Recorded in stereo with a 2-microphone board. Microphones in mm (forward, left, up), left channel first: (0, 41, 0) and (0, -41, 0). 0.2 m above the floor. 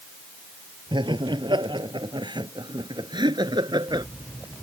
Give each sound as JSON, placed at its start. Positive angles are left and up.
{"t": 0.9, "sound": "laughter", "side_deg": -70}